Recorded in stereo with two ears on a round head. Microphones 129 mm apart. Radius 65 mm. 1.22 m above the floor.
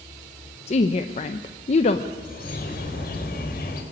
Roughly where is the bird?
Left.